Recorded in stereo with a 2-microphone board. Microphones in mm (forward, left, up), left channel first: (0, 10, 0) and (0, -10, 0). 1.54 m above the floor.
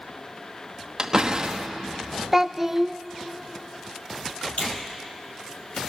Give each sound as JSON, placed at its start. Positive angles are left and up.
{"t": 1.0, "sound": "a door slam", "side_deg": -35, "distance_m": 1.3}
{"t": 2.3, "sound": "a child speaking", "side_deg": -20, "distance_m": 0.7}
{"t": 4.6, "sound": "a finger snap", "side_deg": 80, "distance_m": 3.5}